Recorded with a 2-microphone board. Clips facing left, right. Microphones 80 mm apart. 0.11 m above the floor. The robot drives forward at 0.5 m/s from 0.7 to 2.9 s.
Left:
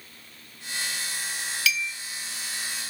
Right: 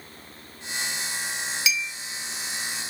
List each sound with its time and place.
1.7 s a clink: 20° right (ahead or behind), 0.7 m